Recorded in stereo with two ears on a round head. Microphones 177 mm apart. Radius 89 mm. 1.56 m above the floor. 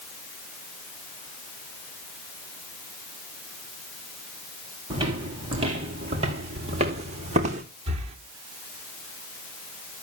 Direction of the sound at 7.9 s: 35° right (ahead or behind).